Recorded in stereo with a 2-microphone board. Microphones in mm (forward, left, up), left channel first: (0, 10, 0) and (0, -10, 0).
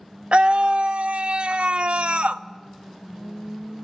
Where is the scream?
60° right (ahead or behind), 0.7 m.